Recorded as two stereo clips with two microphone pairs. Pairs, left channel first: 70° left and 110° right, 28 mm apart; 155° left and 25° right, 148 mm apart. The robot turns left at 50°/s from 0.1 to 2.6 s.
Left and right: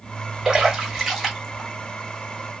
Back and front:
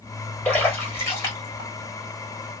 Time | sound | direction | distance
0.5 | a splash | 140° right | 1.5 m